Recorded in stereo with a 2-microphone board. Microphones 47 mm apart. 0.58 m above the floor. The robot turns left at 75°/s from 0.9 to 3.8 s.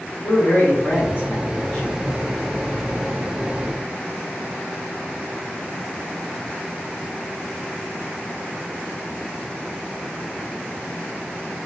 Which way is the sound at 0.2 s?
100° left.